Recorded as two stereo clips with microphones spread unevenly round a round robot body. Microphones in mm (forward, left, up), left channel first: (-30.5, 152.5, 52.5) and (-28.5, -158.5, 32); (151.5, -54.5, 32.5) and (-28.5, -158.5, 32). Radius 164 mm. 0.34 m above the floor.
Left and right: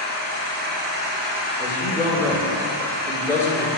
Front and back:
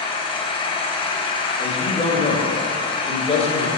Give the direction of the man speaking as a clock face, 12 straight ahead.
12 o'clock.